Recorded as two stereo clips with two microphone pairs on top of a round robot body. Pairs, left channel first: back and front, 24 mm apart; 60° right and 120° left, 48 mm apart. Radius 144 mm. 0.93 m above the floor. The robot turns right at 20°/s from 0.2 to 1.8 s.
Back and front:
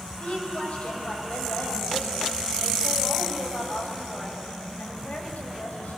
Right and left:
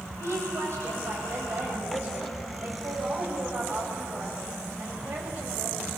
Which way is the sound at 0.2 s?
145° left.